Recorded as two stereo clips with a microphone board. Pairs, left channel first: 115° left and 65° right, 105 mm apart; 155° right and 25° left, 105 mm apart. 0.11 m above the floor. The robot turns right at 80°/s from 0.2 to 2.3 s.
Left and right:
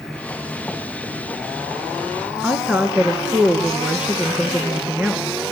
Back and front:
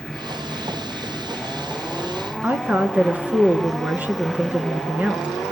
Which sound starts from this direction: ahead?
A woman speaking, at 2.4 s.